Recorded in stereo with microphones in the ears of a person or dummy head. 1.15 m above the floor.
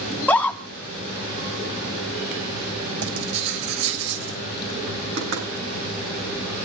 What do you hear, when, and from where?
0.1 s a scream: 10° left (ahead or behind), 3.5 m
3.0 s writing: 85° right, 6 m
5.2 s knocking: 70° right (ahead or behind), 7.5 m